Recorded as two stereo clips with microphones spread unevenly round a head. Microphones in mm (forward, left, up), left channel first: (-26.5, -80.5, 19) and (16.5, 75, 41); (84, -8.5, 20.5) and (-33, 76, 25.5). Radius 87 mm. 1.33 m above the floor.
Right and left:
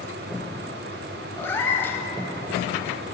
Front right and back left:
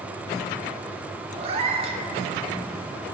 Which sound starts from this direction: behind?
A cat meowing, at 1.4 s.